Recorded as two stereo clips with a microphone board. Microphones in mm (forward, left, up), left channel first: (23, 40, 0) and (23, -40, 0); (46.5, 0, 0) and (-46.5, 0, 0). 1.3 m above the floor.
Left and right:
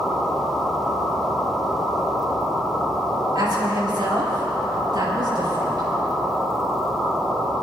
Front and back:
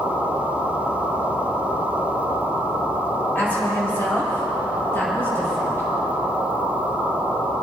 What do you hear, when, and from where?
3.4 s a woman speaking: 70° right, 5 m; by 5.8 s 65° right, 6.5 m